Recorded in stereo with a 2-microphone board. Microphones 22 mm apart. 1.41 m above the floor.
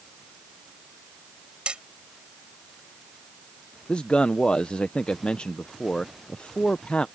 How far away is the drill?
I don't hear a drill.